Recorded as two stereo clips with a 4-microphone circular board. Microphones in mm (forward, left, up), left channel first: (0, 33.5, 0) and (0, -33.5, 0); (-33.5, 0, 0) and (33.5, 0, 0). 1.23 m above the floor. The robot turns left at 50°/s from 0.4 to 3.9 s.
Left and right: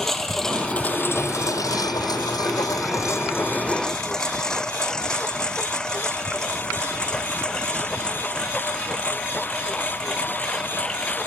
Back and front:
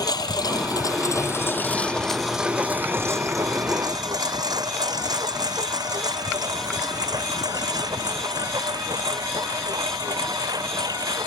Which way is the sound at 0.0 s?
175° left.